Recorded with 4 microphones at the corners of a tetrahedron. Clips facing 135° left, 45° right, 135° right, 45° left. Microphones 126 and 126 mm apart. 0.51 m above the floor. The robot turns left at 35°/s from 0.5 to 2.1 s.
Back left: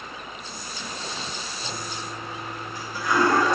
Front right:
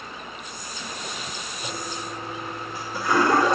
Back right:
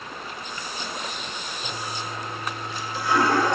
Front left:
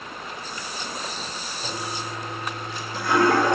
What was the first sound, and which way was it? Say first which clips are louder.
A toilet flushing: front right 3 dB, front left 2 dB; 35° left.